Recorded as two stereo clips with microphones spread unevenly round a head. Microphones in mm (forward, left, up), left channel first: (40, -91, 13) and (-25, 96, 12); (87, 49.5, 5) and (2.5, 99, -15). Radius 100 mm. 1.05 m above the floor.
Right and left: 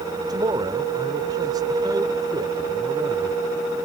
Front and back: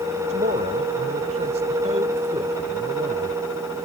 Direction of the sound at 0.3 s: Straight behind.